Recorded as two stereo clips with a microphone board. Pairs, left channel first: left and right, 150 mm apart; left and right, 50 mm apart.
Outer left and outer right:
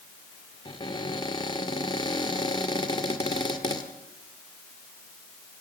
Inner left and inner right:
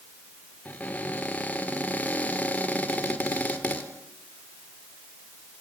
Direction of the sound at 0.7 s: 30° left (ahead or behind).